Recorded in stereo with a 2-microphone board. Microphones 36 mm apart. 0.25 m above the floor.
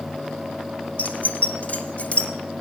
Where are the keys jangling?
50° left (ahead or behind), 1.4 m; by 2.3 s 35° left (ahead or behind), 1.9 m.